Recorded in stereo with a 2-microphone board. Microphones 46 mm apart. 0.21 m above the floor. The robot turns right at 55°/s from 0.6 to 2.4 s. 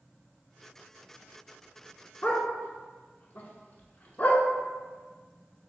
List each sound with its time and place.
2.2 s a dog barking: 30° left (ahead or behind), 0.5 m; by 4.4 s 40° left (ahead or behind), 0.5 m